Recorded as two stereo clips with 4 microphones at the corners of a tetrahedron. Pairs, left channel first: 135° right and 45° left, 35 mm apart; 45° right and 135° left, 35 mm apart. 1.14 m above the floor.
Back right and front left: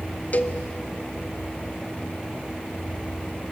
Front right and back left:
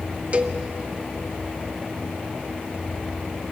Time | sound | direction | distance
0.3 | a cowbell | 175° right | 0.8 m